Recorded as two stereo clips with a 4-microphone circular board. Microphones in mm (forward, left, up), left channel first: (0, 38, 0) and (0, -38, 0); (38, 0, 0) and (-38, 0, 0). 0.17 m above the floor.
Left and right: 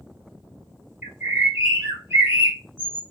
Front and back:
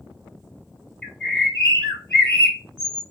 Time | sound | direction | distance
1.0 | a bird | 65° right | 1.1 m